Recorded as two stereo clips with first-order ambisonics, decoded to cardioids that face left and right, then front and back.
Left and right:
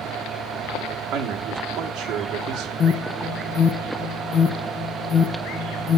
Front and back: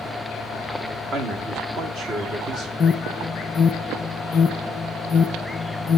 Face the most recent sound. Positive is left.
turn(degrees=40)